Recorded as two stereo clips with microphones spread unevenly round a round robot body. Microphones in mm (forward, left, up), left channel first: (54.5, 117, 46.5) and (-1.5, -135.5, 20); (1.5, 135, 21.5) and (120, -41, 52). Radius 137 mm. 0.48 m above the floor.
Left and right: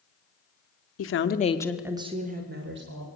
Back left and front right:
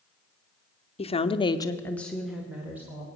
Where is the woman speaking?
85° left, 1.0 m; by 3.1 s 140° right, 1.8 m.